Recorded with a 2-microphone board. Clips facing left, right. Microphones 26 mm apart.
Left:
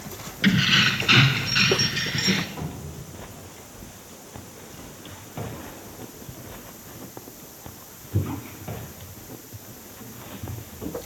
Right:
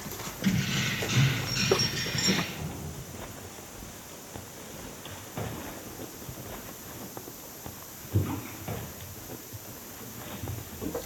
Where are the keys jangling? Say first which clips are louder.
Left 10 dB; 55° left (ahead or behind), 1.9 m; by 2.5 s 20° left (ahead or behind), 2.5 m.